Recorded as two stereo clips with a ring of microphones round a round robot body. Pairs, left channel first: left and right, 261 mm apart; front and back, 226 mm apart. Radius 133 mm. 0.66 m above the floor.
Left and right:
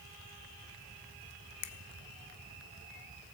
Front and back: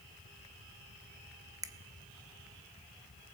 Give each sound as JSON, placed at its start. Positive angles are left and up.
{"t": 1.6, "sound": "a finger snap", "azimuth_deg": 105, "distance_m": 1.1}